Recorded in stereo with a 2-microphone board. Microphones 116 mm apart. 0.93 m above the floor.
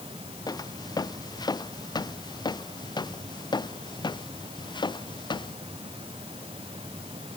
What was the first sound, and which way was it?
Footsteps, 35° left (ahead or behind).